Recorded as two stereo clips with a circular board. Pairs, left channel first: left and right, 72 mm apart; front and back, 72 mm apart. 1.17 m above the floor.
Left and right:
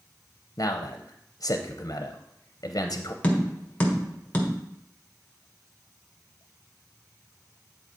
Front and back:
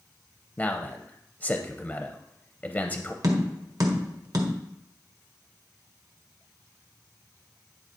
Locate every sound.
0.6 s a man speaking: 70° left, 0.6 m
3.2 s tapping: 155° left, 1.4 m